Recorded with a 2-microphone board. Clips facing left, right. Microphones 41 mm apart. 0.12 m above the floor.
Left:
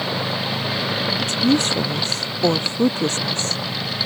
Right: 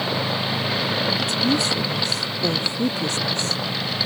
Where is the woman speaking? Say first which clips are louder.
Left 3 dB; 50° left (ahead or behind).